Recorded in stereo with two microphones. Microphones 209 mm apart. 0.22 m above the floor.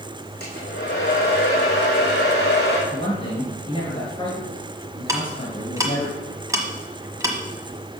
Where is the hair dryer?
50° left (ahead or behind), 3.5 m.